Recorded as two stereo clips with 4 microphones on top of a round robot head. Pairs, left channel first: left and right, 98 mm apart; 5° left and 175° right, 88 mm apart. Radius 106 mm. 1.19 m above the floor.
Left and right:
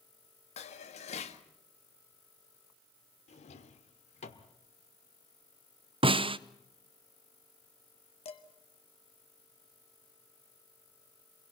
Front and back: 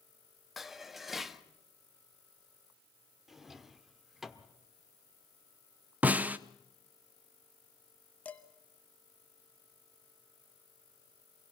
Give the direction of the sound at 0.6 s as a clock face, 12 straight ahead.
9 o'clock.